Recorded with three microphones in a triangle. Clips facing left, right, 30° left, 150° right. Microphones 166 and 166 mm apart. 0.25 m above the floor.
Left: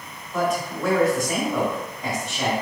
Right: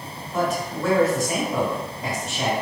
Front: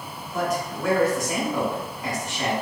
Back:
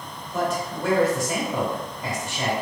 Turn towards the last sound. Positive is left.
turn(degrees=-175)